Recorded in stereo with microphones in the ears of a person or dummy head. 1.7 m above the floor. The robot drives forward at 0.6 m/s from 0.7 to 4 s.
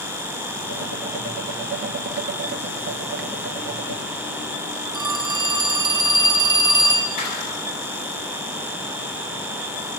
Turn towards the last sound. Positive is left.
turn(degrees=55)  # may be behind; listen again after turning